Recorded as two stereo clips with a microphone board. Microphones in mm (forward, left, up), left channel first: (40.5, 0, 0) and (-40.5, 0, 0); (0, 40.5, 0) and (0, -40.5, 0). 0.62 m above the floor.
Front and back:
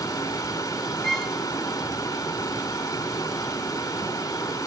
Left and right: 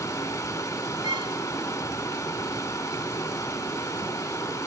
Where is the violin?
85° right, 1.8 m.